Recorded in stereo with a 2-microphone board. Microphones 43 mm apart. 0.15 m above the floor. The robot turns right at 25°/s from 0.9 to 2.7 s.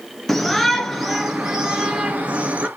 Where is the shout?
175° left, 3 m; by 2.7 s 140° right, 3 m.